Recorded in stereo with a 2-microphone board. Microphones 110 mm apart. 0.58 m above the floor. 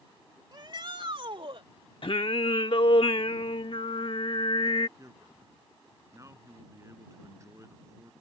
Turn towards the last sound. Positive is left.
turn(degrees=-30)  # may be behind; listen again after turning